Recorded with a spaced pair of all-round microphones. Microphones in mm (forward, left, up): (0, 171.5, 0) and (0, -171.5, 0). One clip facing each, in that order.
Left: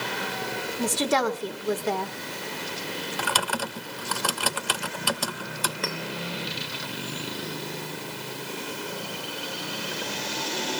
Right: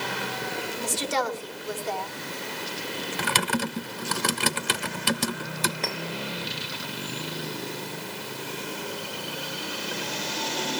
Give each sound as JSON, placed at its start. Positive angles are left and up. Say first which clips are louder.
{"t": 0.8, "sound": "a woman speaking", "louder": "left 6 dB", "side_deg": 75, "distance_m": 1.7}
{"t": 3.2, "sound": "typing on a keyboard", "louder": "right 5 dB", "side_deg": -30, "distance_m": 0.7}
{"t": 5.8, "sound": "a clink", "louder": "even", "side_deg": 20, "distance_m": 1.4}